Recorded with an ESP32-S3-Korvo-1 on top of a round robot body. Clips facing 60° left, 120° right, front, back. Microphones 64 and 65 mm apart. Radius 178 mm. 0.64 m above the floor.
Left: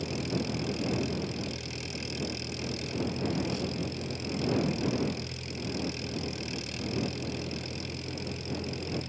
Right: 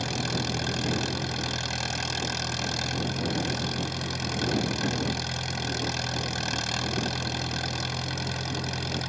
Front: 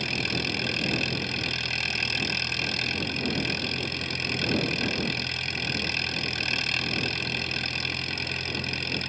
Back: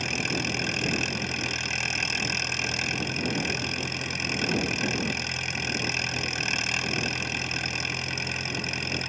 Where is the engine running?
105° right.